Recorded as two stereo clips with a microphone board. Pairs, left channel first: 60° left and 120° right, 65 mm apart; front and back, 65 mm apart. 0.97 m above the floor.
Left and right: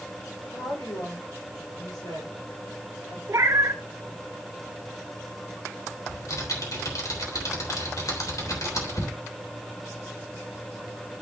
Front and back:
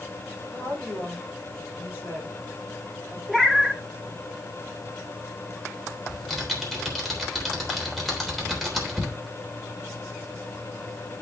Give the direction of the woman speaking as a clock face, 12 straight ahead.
10 o'clock.